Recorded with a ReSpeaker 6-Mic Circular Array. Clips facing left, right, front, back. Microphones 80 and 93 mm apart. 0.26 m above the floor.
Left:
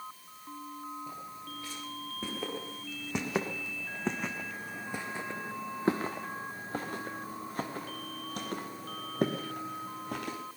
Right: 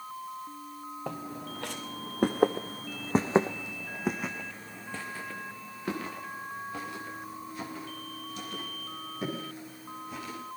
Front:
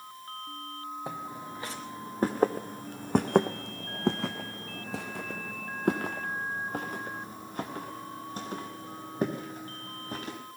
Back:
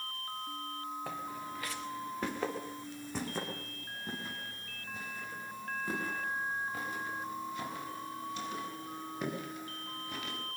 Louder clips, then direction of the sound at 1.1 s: Right 5 dB, front 2 dB; 70° right.